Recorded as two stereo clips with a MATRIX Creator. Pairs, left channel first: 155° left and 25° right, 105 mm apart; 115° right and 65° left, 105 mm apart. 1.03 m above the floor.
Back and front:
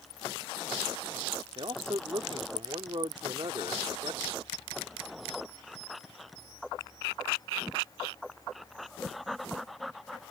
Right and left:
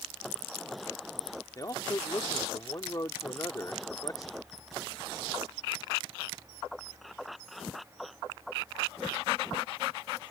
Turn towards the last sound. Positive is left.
turn(degrees=-60)